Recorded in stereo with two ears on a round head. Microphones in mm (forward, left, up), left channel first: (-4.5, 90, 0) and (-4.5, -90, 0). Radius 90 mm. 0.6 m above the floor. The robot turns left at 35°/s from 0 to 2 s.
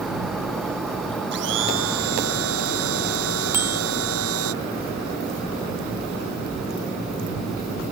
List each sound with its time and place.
1.3 s a blender: 55° right (ahead or behind); by 4.5 s 80° right
3.5 s a bicycle bell: 10° right (ahead or behind)